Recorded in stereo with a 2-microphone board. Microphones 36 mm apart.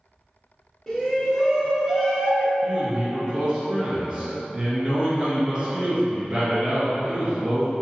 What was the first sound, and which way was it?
A shout, 10° left (ahead or behind).